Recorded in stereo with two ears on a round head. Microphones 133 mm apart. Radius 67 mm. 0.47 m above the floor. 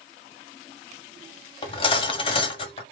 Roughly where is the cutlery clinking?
Left.